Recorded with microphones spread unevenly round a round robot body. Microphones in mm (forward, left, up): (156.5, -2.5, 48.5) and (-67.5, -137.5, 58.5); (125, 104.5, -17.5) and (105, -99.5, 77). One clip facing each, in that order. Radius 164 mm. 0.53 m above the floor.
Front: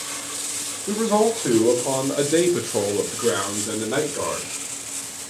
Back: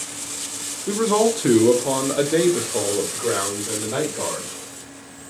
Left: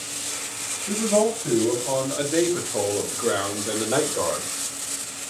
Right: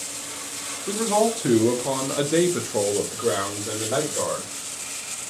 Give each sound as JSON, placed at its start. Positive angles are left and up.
{"t": 0.9, "sound": "a man speaking", "azimuth_deg": -110, "distance_m": 1.1}